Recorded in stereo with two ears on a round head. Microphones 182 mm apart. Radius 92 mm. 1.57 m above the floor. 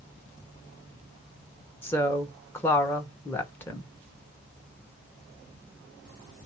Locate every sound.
1.8 s a woman speaking: 10° left (ahead or behind), 1.1 m